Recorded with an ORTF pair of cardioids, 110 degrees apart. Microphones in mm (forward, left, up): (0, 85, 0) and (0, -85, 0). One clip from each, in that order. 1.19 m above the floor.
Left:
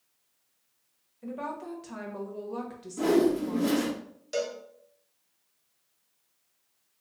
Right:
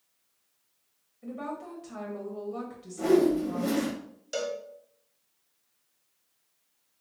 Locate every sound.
1.2 s a woman speaking: 25° left, 1.2 m
3.0 s a whoosh: 45° left, 1.3 m
4.3 s a cowbell: 5° right, 0.7 m